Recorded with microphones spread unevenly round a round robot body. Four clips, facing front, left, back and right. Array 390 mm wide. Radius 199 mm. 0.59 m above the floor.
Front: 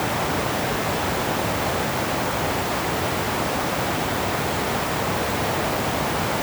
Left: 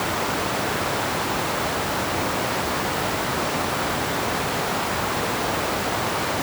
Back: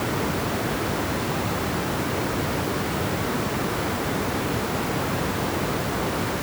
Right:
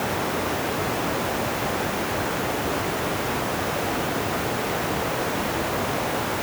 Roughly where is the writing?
I don't hear writing.